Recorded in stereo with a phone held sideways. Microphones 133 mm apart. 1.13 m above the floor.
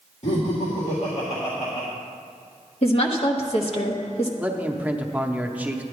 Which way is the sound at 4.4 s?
10° right (ahead or behind).